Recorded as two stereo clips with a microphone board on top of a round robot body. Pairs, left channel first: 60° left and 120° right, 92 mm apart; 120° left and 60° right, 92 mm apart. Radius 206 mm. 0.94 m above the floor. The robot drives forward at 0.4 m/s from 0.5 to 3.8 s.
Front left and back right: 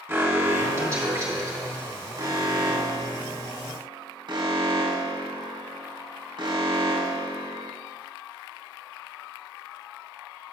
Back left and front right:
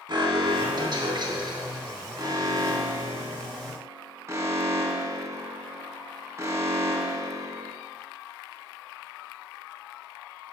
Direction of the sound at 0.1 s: 55° right.